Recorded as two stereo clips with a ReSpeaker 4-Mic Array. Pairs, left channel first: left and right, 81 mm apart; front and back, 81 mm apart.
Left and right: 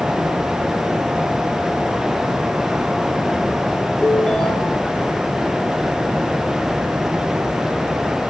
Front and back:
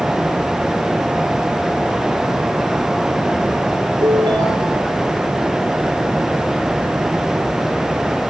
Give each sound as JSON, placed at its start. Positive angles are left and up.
{"t": 4.0, "sound": "a ringtone", "azimuth_deg": 175, "distance_m": 2.5}